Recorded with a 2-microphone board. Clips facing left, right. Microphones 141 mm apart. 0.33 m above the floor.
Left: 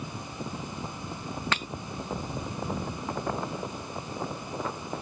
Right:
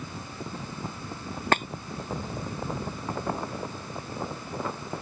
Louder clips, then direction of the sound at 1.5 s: Right 9 dB; 50° right (ahead or behind).